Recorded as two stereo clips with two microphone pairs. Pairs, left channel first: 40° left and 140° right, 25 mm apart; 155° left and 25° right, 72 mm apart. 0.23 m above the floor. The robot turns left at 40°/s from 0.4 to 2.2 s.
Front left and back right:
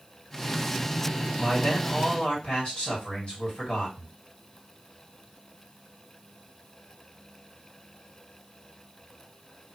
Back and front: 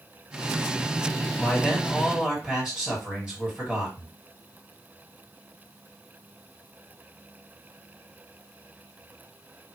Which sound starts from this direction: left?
A man speaking, at 1.4 s.